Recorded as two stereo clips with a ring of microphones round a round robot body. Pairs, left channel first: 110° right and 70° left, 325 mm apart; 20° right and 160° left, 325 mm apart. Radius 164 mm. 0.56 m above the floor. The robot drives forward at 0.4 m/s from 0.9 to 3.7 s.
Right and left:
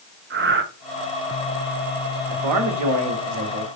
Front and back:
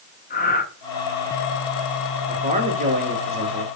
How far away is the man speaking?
About 2.5 m.